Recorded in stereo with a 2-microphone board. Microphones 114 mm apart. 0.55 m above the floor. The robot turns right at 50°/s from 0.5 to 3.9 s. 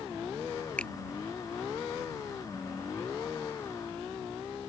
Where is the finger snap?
10° left (ahead or behind); by 0.9 s 5° left (ahead or behind).